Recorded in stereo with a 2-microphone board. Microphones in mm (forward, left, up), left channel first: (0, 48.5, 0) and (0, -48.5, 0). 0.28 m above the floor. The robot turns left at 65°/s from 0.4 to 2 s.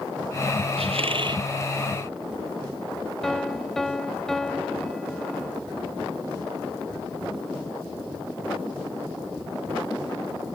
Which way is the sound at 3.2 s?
5° left (ahead or behind).